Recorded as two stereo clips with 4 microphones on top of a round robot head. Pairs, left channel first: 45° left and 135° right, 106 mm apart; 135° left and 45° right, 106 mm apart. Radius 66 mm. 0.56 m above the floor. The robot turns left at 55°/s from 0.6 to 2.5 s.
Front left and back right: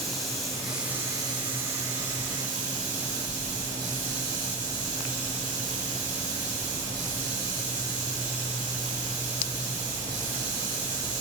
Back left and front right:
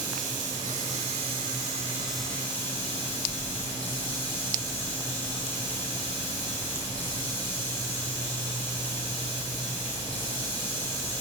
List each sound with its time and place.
0.0 s running water: 45° right, 3 m; by 11.2 s 150° right, 3 m